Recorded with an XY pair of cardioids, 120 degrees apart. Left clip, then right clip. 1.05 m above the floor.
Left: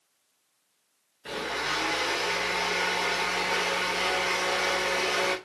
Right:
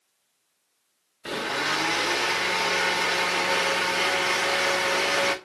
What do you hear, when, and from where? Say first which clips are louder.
1.2 s a blender: right 4 dB; 45° right, 0.6 m